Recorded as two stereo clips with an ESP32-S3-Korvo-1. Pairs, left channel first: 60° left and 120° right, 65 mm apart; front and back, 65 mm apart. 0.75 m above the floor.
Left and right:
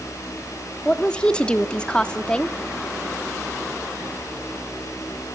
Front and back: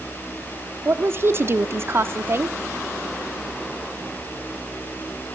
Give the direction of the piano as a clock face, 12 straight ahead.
No piano in this recording.